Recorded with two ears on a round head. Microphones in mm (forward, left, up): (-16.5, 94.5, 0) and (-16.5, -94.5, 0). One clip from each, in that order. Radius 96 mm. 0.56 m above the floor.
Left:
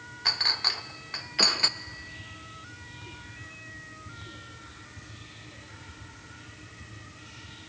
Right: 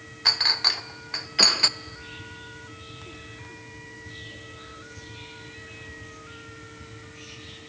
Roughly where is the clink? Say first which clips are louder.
Right 4 dB; centre.